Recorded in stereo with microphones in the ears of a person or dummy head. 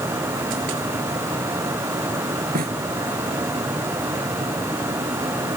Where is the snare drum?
40° right (ahead or behind).